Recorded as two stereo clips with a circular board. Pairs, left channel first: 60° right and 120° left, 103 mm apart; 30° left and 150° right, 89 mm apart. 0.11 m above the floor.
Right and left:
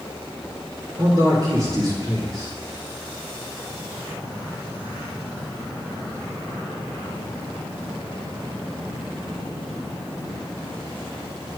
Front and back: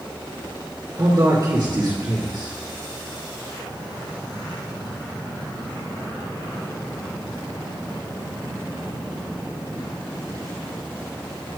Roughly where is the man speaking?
Behind.